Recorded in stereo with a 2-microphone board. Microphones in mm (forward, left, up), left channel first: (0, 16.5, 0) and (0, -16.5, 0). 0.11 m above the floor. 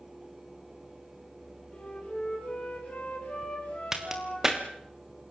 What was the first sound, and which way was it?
A flute, 35° left (ahead or behind).